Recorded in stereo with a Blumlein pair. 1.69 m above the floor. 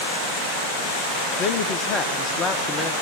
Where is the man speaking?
25° left, 1.4 m.